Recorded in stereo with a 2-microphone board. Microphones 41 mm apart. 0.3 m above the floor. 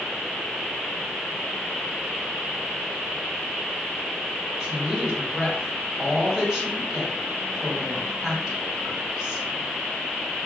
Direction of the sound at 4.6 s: 15° right (ahead or behind).